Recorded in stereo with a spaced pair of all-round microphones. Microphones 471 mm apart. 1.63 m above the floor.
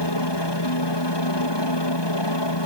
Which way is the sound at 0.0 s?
60° left (ahead or behind).